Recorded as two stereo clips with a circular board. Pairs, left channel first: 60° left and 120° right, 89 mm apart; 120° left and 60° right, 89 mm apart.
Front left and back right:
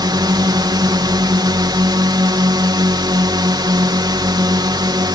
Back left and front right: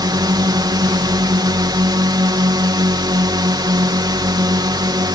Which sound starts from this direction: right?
A drone, at 0.0 s.